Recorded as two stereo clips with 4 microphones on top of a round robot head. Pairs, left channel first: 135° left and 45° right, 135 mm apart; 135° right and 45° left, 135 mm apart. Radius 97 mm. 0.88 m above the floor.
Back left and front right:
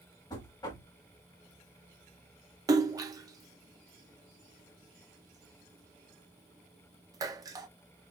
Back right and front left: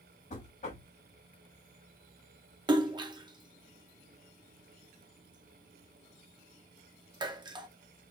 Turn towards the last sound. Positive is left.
turn(degrees=5)